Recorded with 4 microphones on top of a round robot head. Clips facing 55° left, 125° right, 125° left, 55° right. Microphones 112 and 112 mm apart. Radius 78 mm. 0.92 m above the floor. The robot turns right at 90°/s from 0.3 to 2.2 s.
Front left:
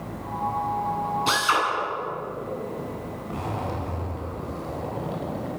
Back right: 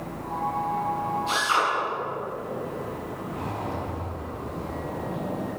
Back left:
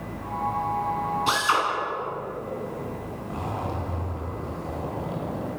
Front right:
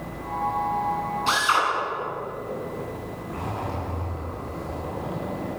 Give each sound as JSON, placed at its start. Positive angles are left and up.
{"t": 1.3, "sound": "a drill", "azimuth_deg": 45, "distance_m": 9.5}
{"t": 3.3, "sound": "a zipper", "azimuth_deg": 55, "distance_m": 5.0}